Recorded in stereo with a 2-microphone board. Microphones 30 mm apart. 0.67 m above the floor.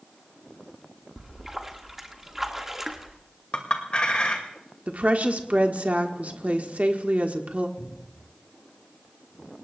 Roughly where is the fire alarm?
No fire alarm in this recording.